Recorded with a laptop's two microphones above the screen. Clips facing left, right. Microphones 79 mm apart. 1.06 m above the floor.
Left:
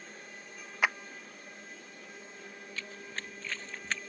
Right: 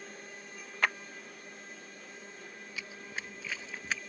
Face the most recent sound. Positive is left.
turn(degrees=-5)  # may be behind; listen again after turning